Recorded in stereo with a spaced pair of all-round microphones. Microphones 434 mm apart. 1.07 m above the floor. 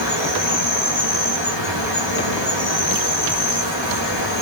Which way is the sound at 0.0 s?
80° left.